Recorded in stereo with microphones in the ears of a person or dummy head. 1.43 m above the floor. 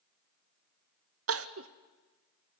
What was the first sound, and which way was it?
Crying, 60° right (ahead or behind).